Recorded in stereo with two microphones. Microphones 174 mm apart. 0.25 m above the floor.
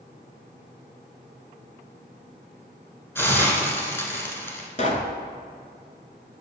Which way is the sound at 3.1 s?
15° left (ahead or behind).